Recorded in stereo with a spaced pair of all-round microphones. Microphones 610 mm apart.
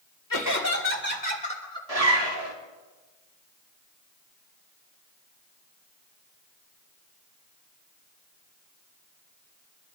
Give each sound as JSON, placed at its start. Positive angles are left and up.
{"t": 0.3, "sound": "laughter", "side_deg": 30, "distance_m": 2.5}
{"t": 1.9, "sound": "a zipper", "side_deg": -75, "distance_m": 2.5}